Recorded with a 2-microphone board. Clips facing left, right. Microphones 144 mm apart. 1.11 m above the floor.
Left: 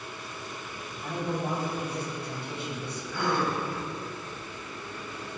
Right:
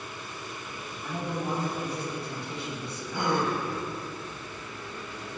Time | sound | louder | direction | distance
1.0 | a man speaking | left 1 dB | 60° left (ahead or behind) | 3.5 m
3.1 | a gasp | right 1 dB | 20° right (ahead or behind) | 1.6 m